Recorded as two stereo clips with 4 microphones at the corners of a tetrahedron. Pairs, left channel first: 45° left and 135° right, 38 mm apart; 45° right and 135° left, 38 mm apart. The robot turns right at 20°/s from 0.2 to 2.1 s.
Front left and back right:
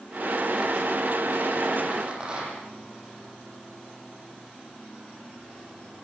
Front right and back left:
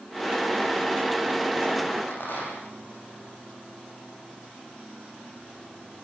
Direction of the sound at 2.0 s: 70° right.